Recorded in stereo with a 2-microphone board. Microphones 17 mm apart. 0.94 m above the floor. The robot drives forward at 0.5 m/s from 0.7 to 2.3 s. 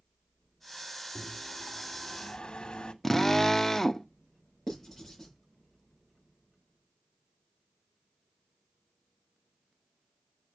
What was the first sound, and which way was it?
A microwave, 45° left (ahead or behind).